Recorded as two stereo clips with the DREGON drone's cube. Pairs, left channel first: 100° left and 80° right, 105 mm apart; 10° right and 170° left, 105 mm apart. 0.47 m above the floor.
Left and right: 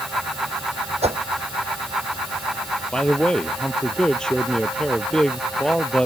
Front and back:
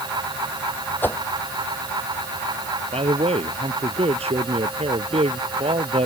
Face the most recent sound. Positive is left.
turn(degrees=-175)